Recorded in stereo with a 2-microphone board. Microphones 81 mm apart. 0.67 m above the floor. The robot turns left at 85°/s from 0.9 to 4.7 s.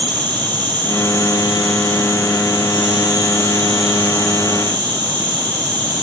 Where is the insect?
110° right, 4.5 m; by 6.0 s 75° right, 4.5 m.